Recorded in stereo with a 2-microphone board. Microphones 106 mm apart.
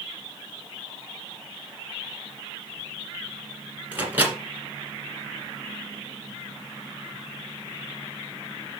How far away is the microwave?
About 2 m.